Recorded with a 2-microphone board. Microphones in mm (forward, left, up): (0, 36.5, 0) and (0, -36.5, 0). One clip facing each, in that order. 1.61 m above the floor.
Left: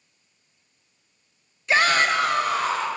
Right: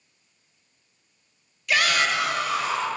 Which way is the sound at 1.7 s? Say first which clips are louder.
Left 3 dB; 25° left (ahead or behind).